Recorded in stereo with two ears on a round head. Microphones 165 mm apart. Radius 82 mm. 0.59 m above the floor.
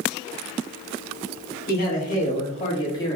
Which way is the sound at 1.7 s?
50° left (ahead or behind).